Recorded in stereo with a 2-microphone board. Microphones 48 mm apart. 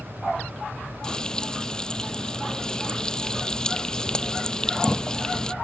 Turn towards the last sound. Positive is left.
turn(degrees=15)  # may be behind; listen again after turning